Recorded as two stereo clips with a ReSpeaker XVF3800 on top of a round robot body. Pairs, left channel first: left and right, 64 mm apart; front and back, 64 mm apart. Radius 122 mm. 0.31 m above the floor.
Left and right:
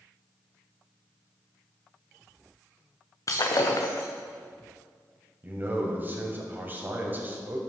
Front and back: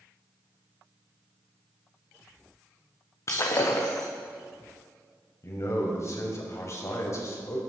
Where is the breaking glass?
50° left, 1.7 m.